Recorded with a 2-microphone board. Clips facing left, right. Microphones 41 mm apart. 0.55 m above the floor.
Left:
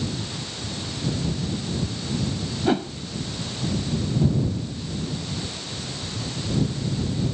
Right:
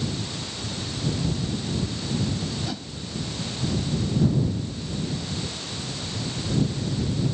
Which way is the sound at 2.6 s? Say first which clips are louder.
Left 11 dB; 40° left (ahead or behind).